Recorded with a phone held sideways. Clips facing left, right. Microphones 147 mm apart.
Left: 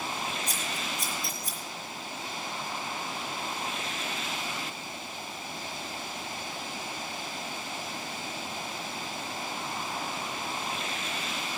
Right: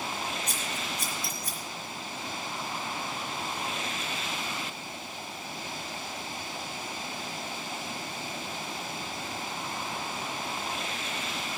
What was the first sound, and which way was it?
Scissors, 70° right (ahead or behind).